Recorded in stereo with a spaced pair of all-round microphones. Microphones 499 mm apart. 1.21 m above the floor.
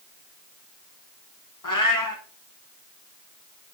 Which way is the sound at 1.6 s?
40° left (ahead or behind).